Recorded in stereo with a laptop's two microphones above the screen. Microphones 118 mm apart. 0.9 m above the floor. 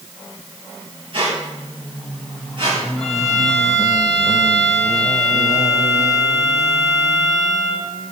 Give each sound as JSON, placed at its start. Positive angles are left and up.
{"t": 1.1, "sound": "a squeak", "side_deg": -50, "distance_m": 5.0}
{"t": 3.0, "sound": "a violin", "side_deg": 0, "distance_m": 4.5}